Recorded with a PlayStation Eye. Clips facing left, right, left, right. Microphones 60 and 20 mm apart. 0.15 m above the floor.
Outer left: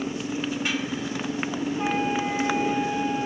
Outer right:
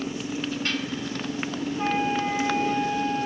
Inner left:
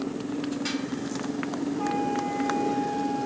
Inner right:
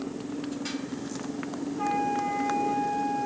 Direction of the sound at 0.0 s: 10° left (ahead or behind).